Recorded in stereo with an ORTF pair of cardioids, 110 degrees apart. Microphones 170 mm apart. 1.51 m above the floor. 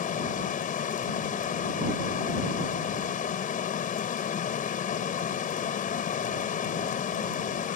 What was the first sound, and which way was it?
Running water, 50° left.